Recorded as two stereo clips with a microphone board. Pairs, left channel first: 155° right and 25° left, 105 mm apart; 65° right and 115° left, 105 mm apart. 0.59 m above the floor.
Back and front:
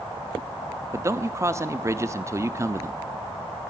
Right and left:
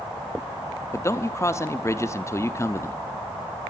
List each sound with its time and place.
0.9 s a man speaking: 25° right, 0.7 m